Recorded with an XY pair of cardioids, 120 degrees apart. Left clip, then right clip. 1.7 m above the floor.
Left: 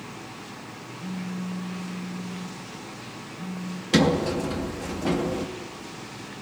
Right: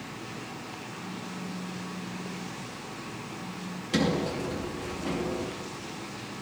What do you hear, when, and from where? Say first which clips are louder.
1.0 s a phone buzzing: left 2 dB; 45° left, 2.5 m
3.9 s a sliding door: left 6 dB; 40° left, 2.5 m